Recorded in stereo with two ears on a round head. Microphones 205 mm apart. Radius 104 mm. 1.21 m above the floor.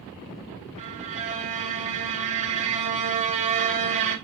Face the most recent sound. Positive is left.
turn(degrees=-30)  # may be behind; listen again after turning